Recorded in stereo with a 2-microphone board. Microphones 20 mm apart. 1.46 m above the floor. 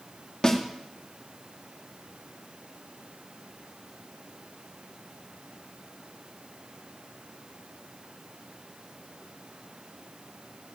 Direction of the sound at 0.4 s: 35° left (ahead or behind).